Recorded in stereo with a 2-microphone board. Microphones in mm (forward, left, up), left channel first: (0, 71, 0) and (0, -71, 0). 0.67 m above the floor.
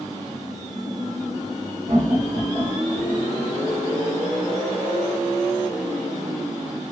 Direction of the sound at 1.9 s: 70° right (ahead or behind).